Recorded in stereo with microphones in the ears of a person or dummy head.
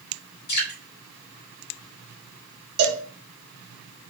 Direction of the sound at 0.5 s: 50° left (ahead or behind).